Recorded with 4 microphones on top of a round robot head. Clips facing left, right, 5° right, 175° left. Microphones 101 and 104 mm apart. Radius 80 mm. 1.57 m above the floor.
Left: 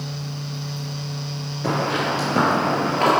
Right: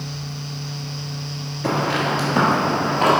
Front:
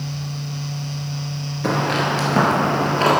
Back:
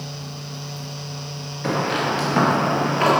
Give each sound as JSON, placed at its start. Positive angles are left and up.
{"t": 1.6, "sound": "footsteps", "azimuth_deg": 15, "distance_m": 1.8}